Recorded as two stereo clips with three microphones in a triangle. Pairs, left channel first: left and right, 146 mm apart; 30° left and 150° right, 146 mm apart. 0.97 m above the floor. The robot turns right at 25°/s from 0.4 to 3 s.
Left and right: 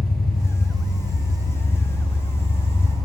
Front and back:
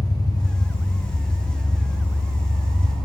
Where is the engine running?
95° left, 0.8 m; by 3.0 s 160° left, 0.8 m.